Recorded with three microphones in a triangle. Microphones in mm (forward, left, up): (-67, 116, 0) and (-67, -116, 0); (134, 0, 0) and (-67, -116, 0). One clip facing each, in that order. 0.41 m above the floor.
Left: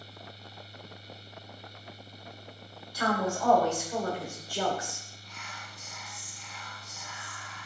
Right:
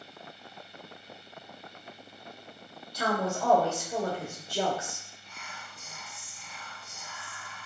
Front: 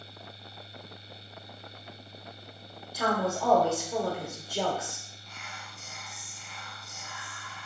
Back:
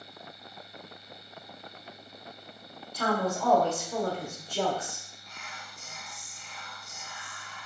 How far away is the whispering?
About 1.5 m.